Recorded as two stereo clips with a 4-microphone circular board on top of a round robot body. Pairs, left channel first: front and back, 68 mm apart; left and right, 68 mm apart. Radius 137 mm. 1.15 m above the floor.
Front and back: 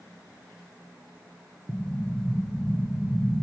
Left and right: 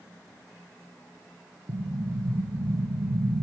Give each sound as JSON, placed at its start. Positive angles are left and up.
{"t": 1.7, "sound": "an explosion", "azimuth_deg": -85, "distance_m": 1.1}